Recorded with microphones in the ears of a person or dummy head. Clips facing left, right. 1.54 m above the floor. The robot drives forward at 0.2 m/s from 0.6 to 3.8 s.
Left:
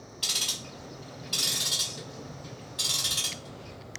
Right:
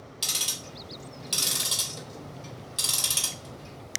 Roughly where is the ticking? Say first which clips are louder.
Even; right.